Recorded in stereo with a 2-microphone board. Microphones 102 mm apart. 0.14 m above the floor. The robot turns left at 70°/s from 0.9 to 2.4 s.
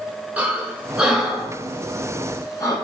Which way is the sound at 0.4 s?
15° right (ahead or behind).